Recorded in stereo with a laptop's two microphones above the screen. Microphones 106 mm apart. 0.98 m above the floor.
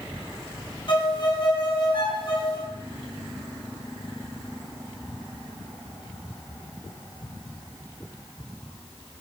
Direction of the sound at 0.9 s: 45° left (ahead or behind).